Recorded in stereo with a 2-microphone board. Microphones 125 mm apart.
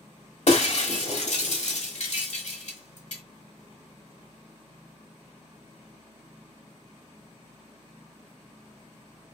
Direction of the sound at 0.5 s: 70° left (ahead or behind).